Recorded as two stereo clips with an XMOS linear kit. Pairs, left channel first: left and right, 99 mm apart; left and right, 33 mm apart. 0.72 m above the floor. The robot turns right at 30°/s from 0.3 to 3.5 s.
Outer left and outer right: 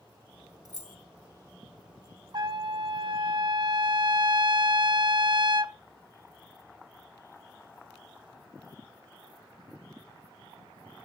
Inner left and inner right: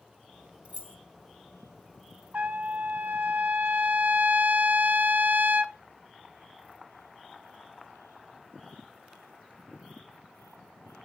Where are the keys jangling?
45° right (ahead or behind), 1.8 m; by 1.0 s 55° right (ahead or behind), 1.8 m.